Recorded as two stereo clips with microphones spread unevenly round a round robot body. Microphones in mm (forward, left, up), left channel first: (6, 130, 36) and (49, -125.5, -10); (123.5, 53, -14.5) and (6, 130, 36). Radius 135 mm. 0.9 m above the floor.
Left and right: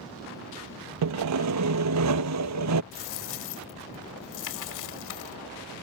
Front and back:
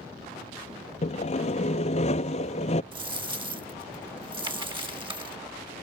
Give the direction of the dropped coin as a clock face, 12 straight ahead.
9 o'clock.